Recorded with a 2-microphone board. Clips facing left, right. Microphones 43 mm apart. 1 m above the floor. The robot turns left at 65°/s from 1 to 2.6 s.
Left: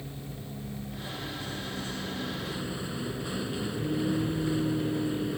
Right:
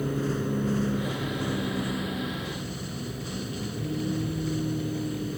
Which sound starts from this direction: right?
A vehicle, at 0.0 s.